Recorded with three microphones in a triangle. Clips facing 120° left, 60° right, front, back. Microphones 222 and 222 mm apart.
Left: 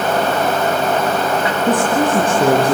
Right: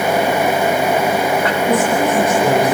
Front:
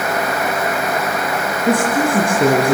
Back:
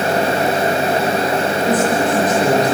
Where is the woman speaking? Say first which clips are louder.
Left 1 dB, front 2 dB; 60° left, 6 m.